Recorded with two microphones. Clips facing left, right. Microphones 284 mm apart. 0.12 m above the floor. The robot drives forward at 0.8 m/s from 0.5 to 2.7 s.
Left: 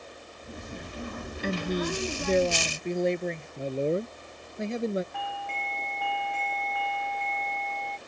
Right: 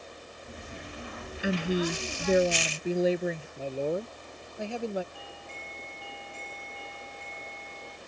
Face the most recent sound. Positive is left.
turn(degrees=70)  # may be behind; listen again after turning